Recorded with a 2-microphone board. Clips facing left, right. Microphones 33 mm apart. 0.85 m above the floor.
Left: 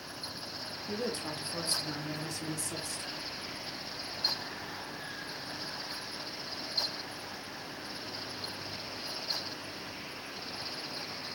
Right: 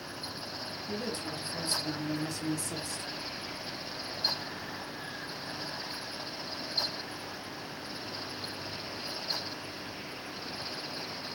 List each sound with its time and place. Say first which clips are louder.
0.9 s a woman speaking: left 1 dB; 40° left (ahead or behind), 1.1 m; by 3.1 s 40° right (ahead or behind), 0.9 m